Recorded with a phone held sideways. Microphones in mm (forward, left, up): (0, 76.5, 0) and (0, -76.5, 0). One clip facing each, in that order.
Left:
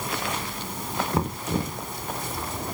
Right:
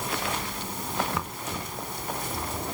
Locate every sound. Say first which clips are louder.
1.1 s knocking: left 7 dB; 35° left (ahead or behind)